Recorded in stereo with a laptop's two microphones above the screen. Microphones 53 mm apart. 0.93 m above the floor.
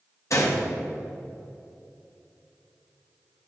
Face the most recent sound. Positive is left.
turn(degrees=70)  # may be behind; listen again after turning